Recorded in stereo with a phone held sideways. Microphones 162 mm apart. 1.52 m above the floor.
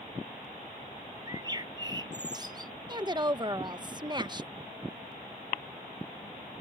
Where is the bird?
25° right (ahead or behind).